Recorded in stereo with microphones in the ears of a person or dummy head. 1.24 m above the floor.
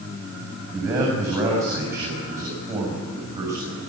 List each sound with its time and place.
0.7 s a man speaking: 15° right (ahead or behind), 8.5 m